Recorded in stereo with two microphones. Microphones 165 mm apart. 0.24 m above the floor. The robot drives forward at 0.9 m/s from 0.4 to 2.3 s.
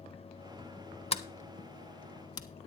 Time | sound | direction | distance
1.1 | a sliding door | 40° left (ahead or behind) | 0.6 m